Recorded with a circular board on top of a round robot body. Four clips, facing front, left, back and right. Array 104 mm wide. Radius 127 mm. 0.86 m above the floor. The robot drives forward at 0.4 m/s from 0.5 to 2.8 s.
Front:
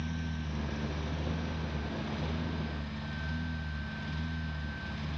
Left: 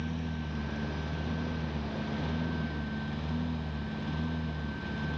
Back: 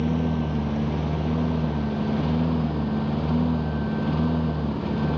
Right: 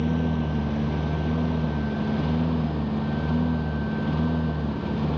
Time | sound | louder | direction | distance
0.0 | a lawn mower | right 12 dB, back 15 dB | 145° right | ?